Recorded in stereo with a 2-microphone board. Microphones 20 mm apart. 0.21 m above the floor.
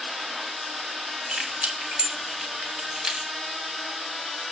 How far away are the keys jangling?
About 1.9 m.